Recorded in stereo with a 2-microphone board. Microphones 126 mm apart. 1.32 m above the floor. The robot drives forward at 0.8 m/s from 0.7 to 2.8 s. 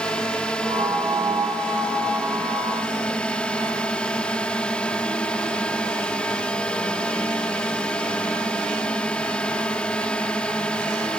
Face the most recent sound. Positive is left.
turn(degrees=10)  # may be behind; listen again after turning